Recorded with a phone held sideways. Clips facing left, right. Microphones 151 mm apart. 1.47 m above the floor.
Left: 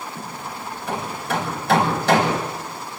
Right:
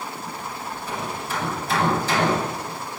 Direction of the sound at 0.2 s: 70° left (ahead or behind).